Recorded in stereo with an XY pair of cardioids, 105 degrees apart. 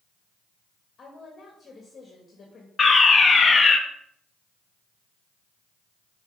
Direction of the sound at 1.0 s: 40° left.